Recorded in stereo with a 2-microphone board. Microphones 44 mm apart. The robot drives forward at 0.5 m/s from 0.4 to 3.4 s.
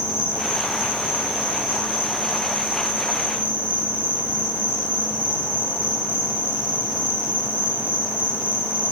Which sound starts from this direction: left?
An insect, at 0.0 s.